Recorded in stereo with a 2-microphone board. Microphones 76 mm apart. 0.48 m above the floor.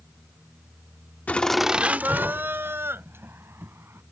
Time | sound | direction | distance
1.3 | laughter | 20° left (ahead or behind) | ?